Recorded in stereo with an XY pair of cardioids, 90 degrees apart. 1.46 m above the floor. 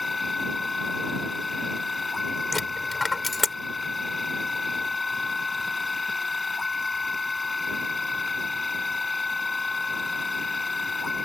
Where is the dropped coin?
30° left.